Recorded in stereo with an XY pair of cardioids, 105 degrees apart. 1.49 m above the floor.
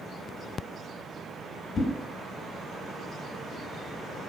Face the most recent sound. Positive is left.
turn(degrees=50)